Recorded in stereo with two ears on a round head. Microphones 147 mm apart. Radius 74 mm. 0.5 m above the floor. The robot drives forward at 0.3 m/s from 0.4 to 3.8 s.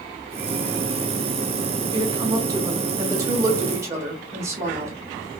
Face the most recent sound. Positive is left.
turn(degrees=-20)  # may be behind; listen again after turning